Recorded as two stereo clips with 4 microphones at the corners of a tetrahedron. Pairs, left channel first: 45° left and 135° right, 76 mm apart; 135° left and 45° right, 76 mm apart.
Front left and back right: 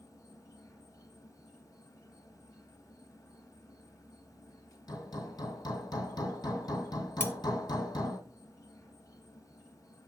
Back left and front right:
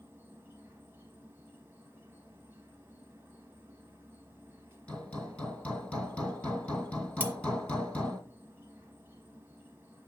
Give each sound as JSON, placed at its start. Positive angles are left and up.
{"t": 0.0, "sound": "an insect", "azimuth_deg": 10, "distance_m": 0.9}
{"t": 4.9, "sound": "hammering", "azimuth_deg": 60, "distance_m": 2.5}
{"t": 7.2, "sound": "cutlery clinking", "azimuth_deg": 0, "distance_m": 0.6}